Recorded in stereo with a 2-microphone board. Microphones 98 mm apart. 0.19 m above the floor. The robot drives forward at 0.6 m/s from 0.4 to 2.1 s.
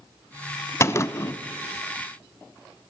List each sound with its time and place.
0.8 s a gunshot: 30° left (ahead or behind), 0.7 m